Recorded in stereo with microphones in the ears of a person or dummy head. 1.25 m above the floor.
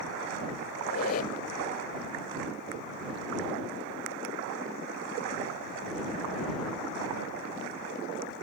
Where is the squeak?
50° left (ahead or behind).